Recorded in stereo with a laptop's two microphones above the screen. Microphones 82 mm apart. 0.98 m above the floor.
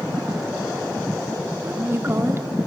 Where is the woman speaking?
30° right (ahead or behind), 2.5 m.